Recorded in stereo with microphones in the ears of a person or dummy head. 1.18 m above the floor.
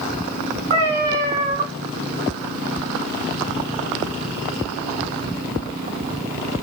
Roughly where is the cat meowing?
Centre.